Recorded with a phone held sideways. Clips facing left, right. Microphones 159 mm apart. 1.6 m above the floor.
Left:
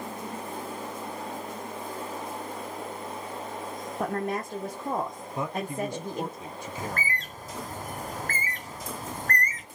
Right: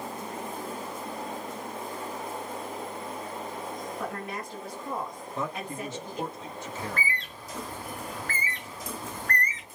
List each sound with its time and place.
4.0 s a woman speaking: 45° left (ahead or behind), 0.9 m
5.3 s a man speaking: 15° left (ahead or behind), 0.8 m
6.8 s a bird: 45° left (ahead or behind), 0.6 m